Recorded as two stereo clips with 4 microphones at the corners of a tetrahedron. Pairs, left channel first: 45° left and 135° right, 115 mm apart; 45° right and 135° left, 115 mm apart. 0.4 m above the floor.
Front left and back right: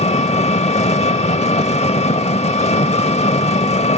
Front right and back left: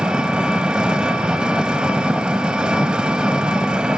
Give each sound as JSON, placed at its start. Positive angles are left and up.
{"t": 0.0, "sound": "an engine running", "azimuth_deg": 55, "distance_m": 0.8}